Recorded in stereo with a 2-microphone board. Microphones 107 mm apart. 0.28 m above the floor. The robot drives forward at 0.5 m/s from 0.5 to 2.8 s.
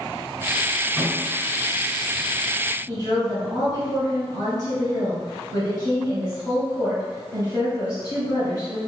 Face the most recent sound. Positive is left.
turn(degrees=35)  # may be behind; listen again after turning